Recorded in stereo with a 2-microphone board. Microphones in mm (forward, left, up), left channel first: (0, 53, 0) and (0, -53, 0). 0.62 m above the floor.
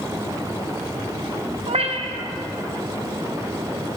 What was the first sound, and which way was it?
A cat meowing, 80° right.